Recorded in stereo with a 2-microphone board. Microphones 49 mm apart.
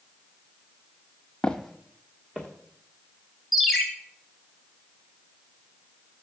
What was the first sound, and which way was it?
Footsteps, 20° left (ahead or behind).